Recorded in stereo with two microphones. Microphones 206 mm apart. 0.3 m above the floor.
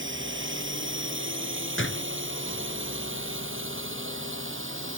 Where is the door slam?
70° left (ahead or behind).